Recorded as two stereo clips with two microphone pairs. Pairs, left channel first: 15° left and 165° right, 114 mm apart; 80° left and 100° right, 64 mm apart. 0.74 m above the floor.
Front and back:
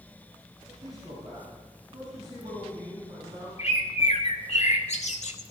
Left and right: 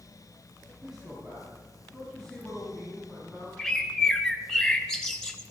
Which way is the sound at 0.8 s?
Straight behind.